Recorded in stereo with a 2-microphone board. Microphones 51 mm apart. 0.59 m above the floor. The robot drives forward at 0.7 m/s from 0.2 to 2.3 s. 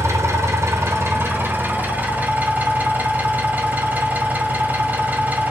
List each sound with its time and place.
0.0 s an engine running: 75° right (ahead or behind), 0.9 m; by 5.5 s 30° right (ahead or behind), 1.8 m